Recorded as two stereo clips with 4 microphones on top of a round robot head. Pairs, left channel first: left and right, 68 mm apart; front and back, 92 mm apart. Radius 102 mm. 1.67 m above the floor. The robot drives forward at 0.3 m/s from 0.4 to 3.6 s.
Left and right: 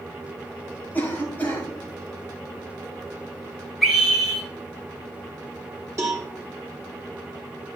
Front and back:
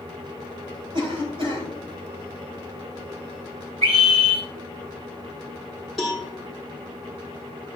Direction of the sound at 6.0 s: 90° right.